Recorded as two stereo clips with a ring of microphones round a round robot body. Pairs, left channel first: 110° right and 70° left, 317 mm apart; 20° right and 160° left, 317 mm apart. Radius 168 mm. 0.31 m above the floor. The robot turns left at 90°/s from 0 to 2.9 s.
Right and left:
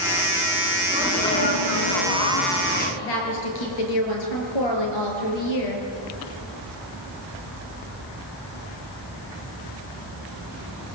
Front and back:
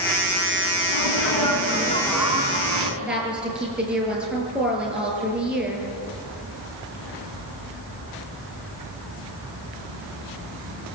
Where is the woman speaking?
115° right, 6.5 m.